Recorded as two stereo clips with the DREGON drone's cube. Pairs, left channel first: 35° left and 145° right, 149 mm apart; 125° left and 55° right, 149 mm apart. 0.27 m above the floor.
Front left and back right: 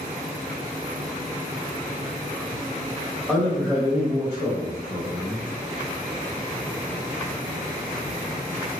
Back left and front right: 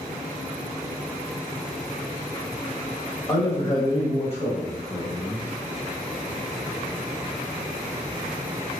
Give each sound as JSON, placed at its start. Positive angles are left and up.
{"t": 3.3, "sound": "a man speaking", "azimuth_deg": 115, "distance_m": 1.3}